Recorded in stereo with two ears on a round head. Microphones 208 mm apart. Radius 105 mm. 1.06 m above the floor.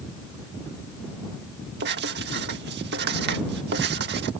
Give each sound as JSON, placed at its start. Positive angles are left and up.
{"t": 1.8, "sound": "writing", "side_deg": -45}